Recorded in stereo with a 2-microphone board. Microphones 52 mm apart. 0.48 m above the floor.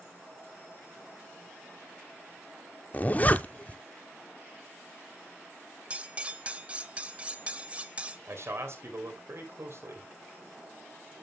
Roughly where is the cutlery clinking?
Right.